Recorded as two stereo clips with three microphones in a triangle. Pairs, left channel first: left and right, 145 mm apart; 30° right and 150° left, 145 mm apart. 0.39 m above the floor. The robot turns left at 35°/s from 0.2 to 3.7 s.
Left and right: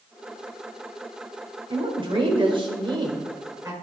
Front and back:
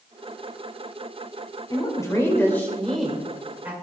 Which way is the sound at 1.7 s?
70° right.